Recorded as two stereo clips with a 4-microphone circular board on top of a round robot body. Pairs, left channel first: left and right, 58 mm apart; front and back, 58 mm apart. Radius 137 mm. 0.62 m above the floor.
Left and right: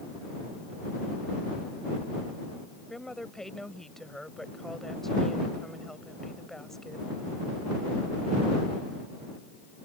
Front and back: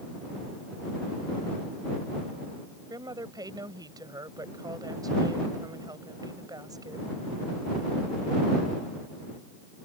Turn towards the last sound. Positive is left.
turn(degrees=175)